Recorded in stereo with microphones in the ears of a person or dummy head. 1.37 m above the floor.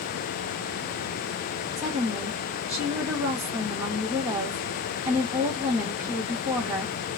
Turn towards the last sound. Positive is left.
turn(degrees=-10)  # may be behind; listen again after turning